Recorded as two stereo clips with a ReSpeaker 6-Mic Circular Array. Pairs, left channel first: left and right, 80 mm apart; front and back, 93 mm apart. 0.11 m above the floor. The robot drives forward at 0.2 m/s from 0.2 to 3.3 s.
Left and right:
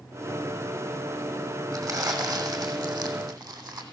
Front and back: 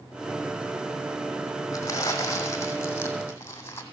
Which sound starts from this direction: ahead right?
Crumpling, at 1.7 s.